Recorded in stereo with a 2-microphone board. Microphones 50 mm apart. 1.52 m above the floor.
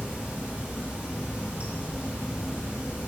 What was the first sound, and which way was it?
Running water, 25° right (ahead or behind).